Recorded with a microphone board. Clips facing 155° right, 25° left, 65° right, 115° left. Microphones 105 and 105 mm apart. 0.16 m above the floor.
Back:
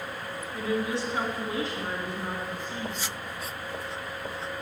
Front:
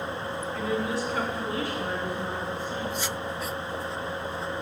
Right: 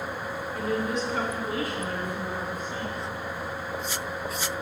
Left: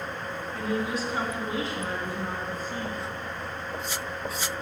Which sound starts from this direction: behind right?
A woman speaking, at 0.5 s.